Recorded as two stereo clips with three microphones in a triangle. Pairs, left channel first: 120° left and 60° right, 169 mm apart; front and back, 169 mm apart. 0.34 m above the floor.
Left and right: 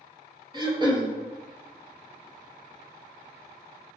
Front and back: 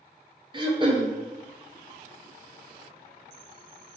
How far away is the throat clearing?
About 1.0 m.